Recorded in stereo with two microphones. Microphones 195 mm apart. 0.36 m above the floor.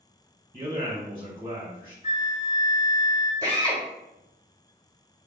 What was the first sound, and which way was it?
A man speaking, 25° right (ahead or behind).